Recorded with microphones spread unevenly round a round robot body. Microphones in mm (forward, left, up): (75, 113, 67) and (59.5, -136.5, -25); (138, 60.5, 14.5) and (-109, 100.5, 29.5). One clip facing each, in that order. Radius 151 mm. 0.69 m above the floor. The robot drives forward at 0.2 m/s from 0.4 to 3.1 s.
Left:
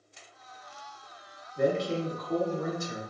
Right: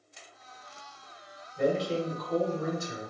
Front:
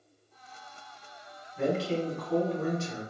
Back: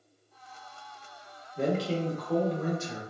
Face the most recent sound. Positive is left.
turn(degrees=140)